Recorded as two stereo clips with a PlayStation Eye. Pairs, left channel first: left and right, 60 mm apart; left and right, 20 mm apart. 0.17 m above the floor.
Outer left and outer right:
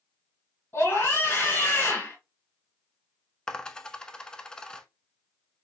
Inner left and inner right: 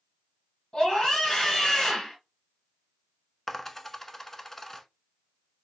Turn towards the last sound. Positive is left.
turn(degrees=15)  # may be behind; listen again after turning